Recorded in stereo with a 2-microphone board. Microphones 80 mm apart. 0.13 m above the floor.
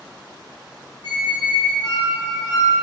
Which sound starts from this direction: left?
A squeak, at 1.0 s.